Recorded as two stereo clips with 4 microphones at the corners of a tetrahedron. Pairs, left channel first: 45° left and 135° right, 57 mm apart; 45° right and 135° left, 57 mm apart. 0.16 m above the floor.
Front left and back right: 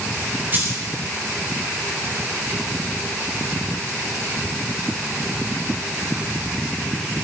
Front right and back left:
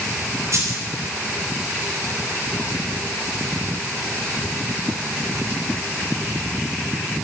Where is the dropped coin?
170° left, 4.5 m.